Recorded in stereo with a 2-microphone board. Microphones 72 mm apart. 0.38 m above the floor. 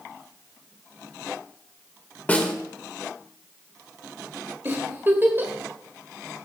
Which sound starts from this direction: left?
A snare drum, at 2.3 s.